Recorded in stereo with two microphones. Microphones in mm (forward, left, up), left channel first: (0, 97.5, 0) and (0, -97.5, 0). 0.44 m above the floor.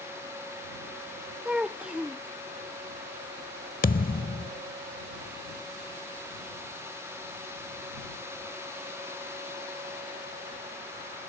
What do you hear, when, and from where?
1.4 s a child speaking: 5° right (ahead or behind)
3.8 s a thud: 50° left (ahead or behind)